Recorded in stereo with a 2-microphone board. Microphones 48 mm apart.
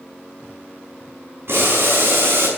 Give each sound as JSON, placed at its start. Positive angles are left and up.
{"t": 1.5, "sound": "boiling", "side_deg": -60, "distance_m": 6.0}